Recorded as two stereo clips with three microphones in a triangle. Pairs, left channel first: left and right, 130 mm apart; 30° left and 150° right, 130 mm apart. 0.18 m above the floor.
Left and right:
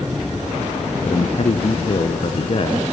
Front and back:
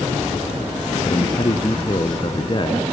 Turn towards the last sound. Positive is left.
turn(degrees=65)